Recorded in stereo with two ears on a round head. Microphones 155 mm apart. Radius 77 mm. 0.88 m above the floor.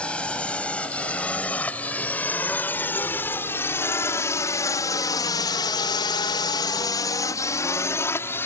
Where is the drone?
5° left (ahead or behind); by 8.5 s 15° left (ahead or behind).